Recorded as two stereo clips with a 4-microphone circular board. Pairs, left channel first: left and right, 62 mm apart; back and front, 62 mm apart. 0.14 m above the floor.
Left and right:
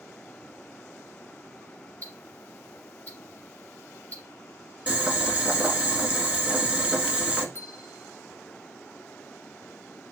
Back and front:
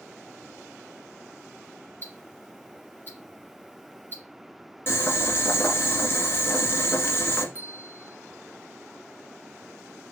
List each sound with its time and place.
2.0 s ticking: 140° left, 2 m
4.9 s boiling: 150° right, 1.3 m
7.5 s a bell: 55° left, 1.1 m